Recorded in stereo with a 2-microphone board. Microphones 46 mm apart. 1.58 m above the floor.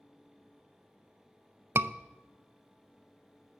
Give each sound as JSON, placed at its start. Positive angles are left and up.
{"t": 1.8, "sound": "a scream", "side_deg": -55, "distance_m": 0.6}